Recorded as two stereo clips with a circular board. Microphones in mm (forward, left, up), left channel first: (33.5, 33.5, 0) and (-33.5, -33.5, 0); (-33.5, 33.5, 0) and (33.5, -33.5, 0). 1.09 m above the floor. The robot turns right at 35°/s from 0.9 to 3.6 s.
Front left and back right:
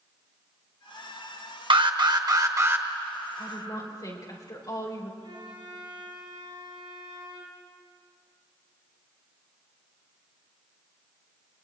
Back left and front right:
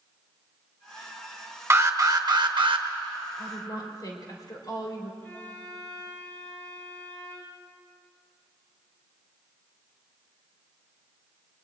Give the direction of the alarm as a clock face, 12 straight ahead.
4 o'clock.